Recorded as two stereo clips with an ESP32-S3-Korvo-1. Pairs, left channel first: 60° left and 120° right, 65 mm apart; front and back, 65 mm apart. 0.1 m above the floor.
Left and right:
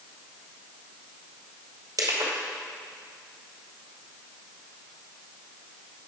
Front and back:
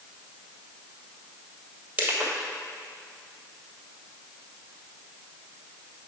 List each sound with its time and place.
2.0 s crushing: 125° right, 2 m